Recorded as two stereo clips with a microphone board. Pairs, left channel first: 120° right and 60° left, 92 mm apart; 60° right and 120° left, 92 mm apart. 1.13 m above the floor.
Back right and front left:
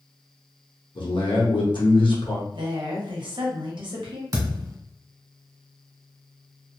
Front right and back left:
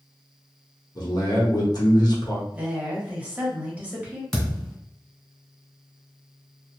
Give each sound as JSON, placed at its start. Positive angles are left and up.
{"t": 0.9, "sound": "a man speaking", "azimuth_deg": -100, "distance_m": 1.1}
{"t": 2.5, "sound": "a woman speaking", "azimuth_deg": 45, "distance_m": 1.0}
{"t": 4.3, "sound": "a thud", "azimuth_deg": 25, "distance_m": 1.4}